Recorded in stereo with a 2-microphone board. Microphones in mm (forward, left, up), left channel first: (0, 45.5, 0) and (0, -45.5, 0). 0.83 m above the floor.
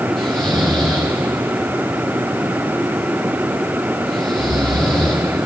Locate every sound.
0.2 s snoring: 5° left (ahead or behind), 5 m